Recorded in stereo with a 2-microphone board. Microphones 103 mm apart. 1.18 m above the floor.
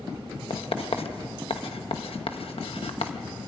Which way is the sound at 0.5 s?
70° left (ahead or behind).